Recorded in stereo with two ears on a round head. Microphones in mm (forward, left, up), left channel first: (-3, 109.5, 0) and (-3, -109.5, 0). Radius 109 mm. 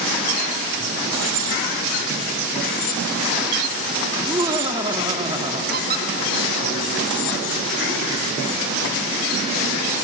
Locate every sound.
4.2 s laughter: 20° right (ahead or behind), 1.2 m
5.7 s a squeak: 40° right (ahead or behind), 1.7 m